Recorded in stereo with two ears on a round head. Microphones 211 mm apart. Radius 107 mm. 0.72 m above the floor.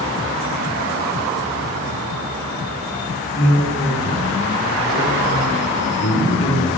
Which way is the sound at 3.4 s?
15° left (ahead or behind).